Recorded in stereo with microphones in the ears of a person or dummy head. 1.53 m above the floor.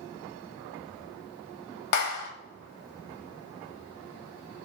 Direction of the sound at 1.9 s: 55° left (ahead or behind).